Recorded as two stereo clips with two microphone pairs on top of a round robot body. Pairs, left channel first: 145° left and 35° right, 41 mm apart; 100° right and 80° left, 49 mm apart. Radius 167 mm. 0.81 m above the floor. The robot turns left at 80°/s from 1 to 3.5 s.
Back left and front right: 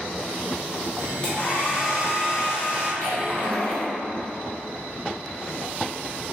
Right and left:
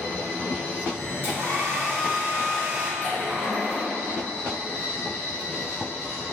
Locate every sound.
1.2 s a hair dryer: 145° right, 0.5 m; by 2.9 s 80° left, 0.5 m
3.0 s a splash: straight behind, 1.6 m; by 3.9 s 140° left, 1.6 m